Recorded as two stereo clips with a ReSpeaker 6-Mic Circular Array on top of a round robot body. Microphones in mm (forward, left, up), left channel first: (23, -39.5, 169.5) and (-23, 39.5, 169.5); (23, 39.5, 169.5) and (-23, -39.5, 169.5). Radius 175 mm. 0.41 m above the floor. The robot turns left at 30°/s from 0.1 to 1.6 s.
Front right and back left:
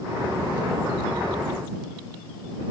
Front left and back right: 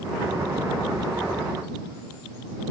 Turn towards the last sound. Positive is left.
No sound to turn to.